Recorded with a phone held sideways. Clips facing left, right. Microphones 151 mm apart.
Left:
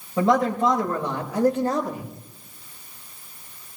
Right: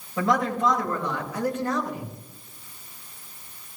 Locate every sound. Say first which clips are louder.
0.2 s a man speaking: left 4 dB; 25° left (ahead or behind), 7.5 m; by 2.1 s 35° left (ahead or behind), 7 m